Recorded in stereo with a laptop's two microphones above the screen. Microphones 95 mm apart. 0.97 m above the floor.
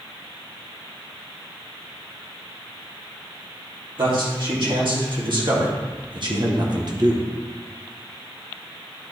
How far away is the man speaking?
About 2.5 m.